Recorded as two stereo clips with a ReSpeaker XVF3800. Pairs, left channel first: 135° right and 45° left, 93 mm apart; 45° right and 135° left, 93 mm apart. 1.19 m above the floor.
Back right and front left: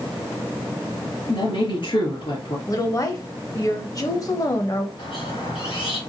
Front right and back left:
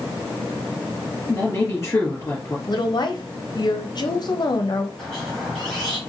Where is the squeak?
130° right, 3 m.